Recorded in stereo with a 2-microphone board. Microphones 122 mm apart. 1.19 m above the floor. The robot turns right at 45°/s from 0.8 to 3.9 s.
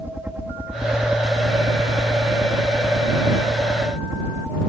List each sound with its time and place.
0.0 s a helicopter: 165° right; by 4.7 s 25° right